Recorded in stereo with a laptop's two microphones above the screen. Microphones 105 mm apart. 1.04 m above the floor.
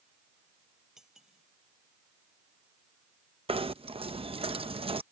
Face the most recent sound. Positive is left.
turn(degrees=-65)  # may be behind; listen again after turning